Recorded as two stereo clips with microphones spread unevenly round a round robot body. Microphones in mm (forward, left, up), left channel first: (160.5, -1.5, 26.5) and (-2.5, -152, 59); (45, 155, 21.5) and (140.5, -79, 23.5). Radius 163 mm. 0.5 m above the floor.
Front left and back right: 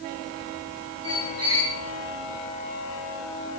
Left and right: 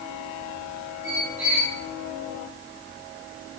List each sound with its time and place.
1.0 s a squeak: 125° right, 3.5 m